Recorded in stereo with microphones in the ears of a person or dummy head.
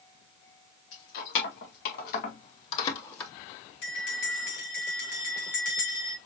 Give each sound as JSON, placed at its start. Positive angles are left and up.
{"t": 0.9, "sound": "keys jangling", "side_deg": 75, "distance_m": 2.5}
{"t": 3.8, "sound": "a bell", "side_deg": 60, "distance_m": 2.5}